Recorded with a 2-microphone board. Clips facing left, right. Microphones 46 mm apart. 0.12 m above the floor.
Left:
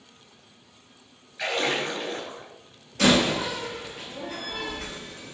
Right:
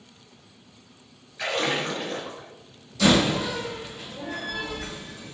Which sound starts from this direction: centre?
A splash, at 1.4 s.